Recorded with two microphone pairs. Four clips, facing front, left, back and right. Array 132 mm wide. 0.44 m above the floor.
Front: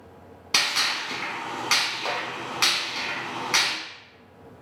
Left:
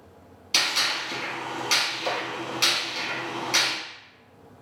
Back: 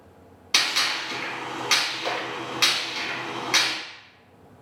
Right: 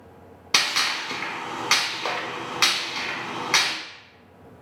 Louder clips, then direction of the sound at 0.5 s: Right 2 dB, even; 80° right.